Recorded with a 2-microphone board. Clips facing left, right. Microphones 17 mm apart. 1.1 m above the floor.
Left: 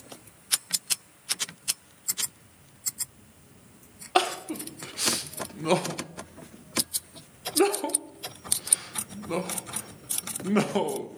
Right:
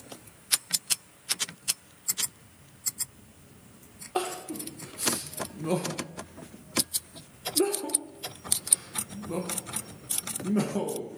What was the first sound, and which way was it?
Crying, 55° left (ahead or behind).